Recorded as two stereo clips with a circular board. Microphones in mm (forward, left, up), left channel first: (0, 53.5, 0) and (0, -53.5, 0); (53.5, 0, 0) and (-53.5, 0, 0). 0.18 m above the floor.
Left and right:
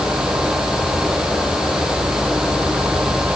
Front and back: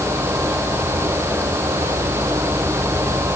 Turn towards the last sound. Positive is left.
No sound to turn to.